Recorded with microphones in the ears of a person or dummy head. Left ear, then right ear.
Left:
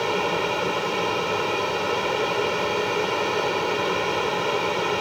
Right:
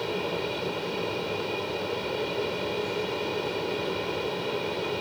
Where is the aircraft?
50° left (ahead or behind).